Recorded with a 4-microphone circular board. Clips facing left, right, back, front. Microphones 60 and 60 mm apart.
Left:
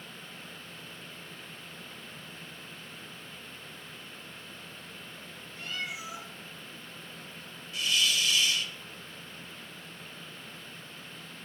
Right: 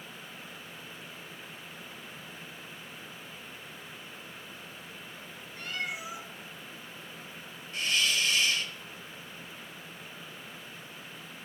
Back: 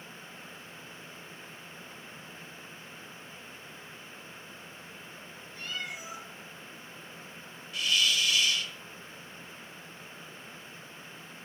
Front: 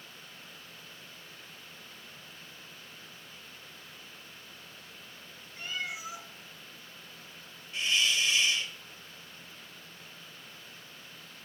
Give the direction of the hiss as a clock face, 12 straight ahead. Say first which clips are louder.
Even, even; 2 o'clock.